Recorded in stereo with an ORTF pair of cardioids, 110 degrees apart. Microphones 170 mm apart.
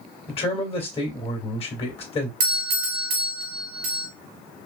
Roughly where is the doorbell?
Right.